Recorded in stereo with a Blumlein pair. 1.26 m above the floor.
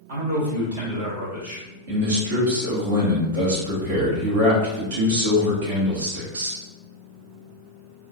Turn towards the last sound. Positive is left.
turn(degrees=-55)